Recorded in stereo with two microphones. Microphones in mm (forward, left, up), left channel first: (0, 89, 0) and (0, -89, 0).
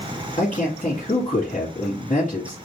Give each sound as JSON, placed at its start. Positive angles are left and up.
{"t": 0.4, "sound": "a man speaking", "side_deg": 45, "distance_m": 1.8}